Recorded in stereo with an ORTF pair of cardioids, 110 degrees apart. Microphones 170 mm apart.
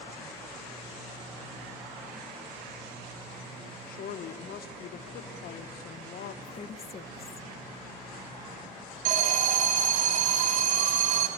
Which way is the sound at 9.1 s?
55° right.